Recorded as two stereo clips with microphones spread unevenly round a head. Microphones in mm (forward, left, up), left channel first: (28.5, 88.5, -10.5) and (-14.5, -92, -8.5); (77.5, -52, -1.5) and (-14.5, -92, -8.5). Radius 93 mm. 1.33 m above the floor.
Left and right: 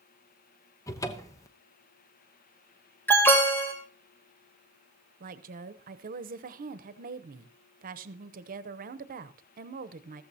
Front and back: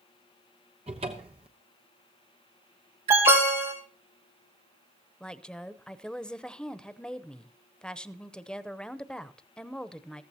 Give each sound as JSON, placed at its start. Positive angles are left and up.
{"t": 0.9, "sound": "a cupboard door", "azimuth_deg": 150, "distance_m": 0.8}
{"t": 3.1, "sound": "an alarm", "azimuth_deg": 155, "distance_m": 3.0}
{"t": 5.2, "sound": "a woman speaking", "azimuth_deg": -60, "distance_m": 0.8}